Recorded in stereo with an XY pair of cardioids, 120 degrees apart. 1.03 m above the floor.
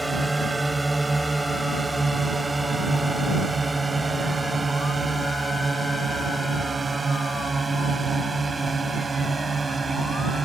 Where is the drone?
10° right; by 10.5 s 25° right.